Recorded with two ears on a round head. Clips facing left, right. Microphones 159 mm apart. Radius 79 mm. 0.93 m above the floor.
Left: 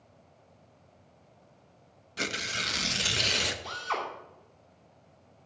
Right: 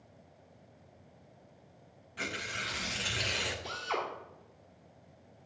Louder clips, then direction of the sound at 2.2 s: Left 4 dB; 50° left (ahead or behind).